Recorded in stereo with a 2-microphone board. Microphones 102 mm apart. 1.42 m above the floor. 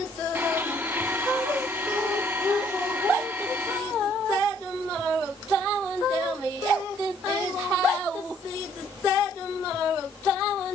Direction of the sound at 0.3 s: 20° right (ahead or behind).